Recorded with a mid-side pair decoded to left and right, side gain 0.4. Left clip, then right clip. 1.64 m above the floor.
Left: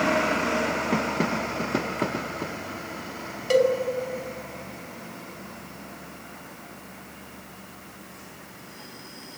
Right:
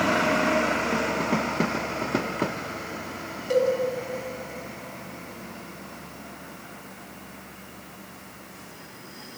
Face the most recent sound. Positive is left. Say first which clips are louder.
# left 2 dB
turn(degrees=60)